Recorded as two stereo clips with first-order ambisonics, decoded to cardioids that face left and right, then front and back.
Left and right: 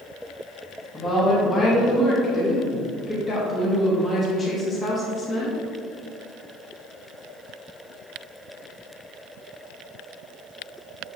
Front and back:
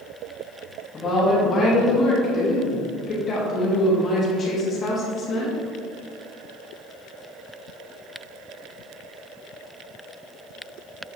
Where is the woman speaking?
35° left, 1.2 m.